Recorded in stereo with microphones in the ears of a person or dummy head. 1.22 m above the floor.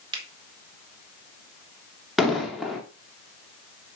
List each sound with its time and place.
0.1 s a finger snap: 30° right (ahead or behind), 1.9 m
2.2 s an explosion: centre (ahead or behind), 1.7 m